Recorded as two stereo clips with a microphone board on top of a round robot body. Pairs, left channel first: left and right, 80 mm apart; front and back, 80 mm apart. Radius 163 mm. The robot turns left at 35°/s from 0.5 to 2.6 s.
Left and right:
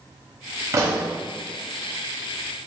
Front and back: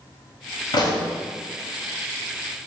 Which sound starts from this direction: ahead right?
A pop, at 0.7 s.